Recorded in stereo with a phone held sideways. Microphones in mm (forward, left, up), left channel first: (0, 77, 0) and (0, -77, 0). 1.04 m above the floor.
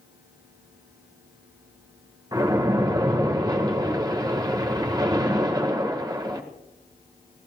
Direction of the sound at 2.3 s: 25° right (ahead or behind).